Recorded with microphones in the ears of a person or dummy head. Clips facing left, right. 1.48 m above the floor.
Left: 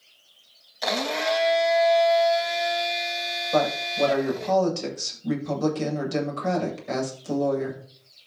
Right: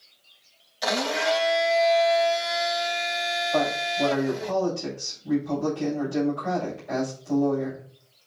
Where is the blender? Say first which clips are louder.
Right 1 dB; centre (ahead or behind), 1.6 m.